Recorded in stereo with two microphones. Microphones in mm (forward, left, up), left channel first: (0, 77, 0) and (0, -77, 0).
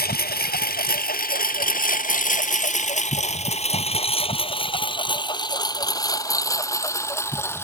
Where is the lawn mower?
85° left; by 7.6 s 15° left (ahead or behind).